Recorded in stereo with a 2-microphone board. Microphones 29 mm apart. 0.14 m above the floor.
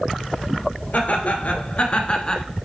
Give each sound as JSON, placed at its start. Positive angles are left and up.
{"t": 0.9, "sound": "laughter", "side_deg": 60, "distance_m": 2.0}